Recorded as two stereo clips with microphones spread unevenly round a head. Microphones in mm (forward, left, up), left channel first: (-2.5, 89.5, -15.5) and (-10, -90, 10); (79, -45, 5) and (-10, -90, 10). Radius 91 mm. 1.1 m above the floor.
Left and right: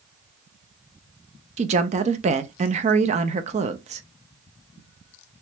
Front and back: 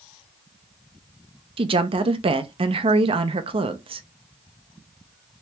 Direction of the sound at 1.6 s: 145° right.